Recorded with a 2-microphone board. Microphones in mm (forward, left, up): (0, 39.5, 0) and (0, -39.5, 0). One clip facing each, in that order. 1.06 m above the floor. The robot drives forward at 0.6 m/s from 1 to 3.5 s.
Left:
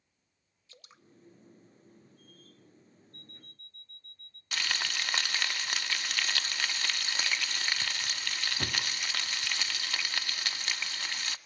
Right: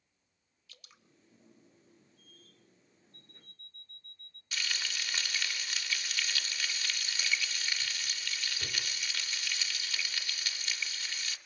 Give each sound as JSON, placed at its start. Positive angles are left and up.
{"t": 0.7, "sound": "dripping", "side_deg": 30, "distance_m": 1.5}
{"t": 3.1, "sound": "an alarm clock", "side_deg": 70, "distance_m": 2.0}
{"t": 4.5, "sound": "frying", "side_deg": 75, "distance_m": 1.6}